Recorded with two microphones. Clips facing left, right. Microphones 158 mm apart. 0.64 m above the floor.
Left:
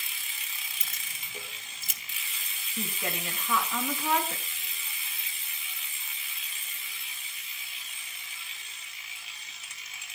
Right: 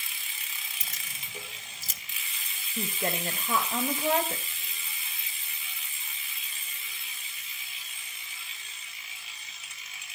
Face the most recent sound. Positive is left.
turn(degrees=-45)  # may be behind; listen again after turning